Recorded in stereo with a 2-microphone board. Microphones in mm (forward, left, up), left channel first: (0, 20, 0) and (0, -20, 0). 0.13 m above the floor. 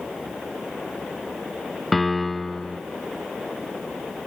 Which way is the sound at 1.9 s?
5° left (ahead or behind).